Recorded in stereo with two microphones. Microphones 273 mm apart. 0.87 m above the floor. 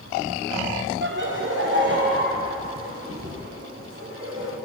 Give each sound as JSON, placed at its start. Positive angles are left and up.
{"t": 1.0, "sound": "laughter", "side_deg": -40, "distance_m": 0.6}